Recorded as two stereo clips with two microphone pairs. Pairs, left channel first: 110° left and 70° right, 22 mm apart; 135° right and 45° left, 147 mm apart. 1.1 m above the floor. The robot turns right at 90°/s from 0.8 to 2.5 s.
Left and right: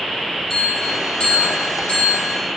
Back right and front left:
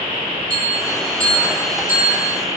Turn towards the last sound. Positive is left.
turn(degrees=175)